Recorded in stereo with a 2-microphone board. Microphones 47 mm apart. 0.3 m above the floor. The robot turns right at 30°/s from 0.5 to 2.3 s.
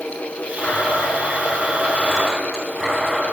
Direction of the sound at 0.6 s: 130° left.